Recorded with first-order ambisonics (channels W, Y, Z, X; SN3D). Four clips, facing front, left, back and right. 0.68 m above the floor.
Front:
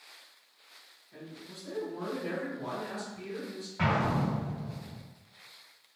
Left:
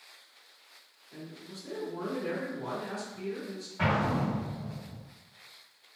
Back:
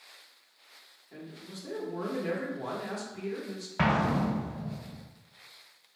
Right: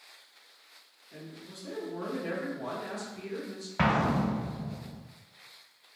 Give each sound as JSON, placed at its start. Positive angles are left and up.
{"t": 1.1, "sound": "a man speaking", "azimuth_deg": -175, "distance_m": 1.2}
{"t": 3.8, "sound": "an explosion", "azimuth_deg": -130, "distance_m": 0.5}